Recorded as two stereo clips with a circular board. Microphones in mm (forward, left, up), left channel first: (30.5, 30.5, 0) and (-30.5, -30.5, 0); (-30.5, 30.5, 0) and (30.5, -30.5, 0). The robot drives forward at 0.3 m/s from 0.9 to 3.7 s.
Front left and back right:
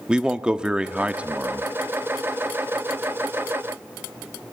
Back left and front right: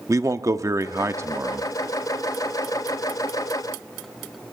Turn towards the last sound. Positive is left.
turn(degrees=-145)